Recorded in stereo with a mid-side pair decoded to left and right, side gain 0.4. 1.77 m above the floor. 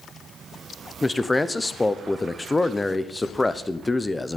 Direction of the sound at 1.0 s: 20° left.